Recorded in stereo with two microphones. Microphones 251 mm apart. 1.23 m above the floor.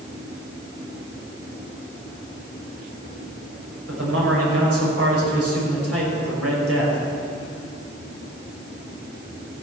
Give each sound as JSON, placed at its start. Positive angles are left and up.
{"t": 3.9, "sound": "a man speaking", "side_deg": -70, "distance_m": 6.0}